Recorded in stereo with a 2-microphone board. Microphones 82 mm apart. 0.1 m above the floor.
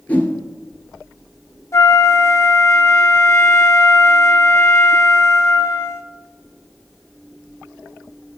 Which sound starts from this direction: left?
A flute, at 1.7 s.